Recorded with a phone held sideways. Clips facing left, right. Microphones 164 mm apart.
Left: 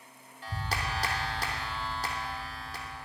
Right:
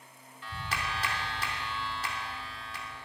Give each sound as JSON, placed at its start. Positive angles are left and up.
{"t": 0.4, "sound": "a clap", "side_deg": 40, "distance_m": 2.0}